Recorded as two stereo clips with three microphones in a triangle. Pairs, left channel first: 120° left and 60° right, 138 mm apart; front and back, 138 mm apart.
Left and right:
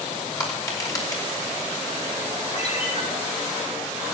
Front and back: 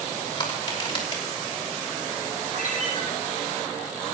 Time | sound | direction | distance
0.4 | crushing | 55° left | 3 m
2.5 | a ringtone | 160° left | 4 m